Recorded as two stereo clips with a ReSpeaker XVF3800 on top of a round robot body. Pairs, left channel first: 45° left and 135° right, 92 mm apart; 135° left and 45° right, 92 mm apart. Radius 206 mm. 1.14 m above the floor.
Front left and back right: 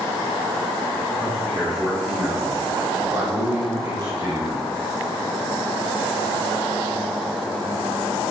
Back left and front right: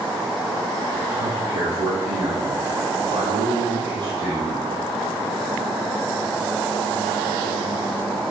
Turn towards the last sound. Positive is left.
turn(degrees=-100)